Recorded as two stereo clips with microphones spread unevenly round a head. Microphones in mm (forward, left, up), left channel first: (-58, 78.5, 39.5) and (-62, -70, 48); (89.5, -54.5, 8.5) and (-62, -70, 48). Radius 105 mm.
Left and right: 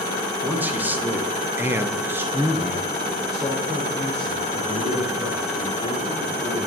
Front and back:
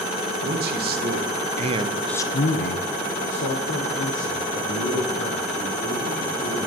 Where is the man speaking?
170° right, 1.7 m; by 6.7 s 5° left, 4.5 m.